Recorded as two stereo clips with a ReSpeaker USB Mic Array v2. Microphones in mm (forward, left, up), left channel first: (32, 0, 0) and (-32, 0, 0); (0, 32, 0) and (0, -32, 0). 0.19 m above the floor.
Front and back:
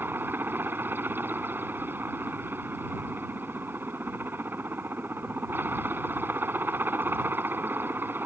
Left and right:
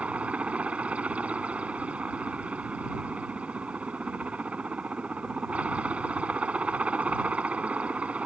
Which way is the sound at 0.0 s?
150° right.